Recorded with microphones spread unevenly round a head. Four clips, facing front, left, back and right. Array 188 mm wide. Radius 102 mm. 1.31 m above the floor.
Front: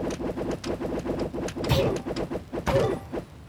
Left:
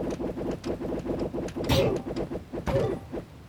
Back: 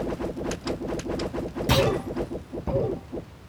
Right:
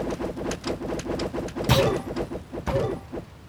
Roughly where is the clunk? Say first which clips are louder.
Right 3 dB, back 3 dB; behind right.